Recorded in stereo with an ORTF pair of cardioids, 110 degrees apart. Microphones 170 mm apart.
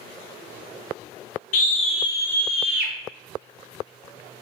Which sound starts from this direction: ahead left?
A scream, at 1.5 s.